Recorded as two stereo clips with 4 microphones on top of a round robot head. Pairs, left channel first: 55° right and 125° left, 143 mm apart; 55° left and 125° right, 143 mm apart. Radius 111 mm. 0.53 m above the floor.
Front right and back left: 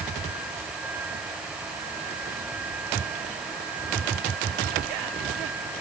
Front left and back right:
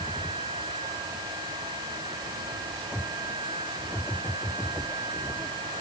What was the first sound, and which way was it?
Only background noise.